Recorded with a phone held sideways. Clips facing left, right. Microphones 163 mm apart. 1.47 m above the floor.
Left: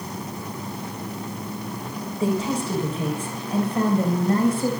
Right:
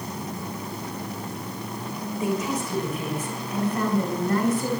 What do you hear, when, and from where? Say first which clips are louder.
2.2 s a woman speaking: left 3 dB; 30° left (ahead or behind), 6.5 m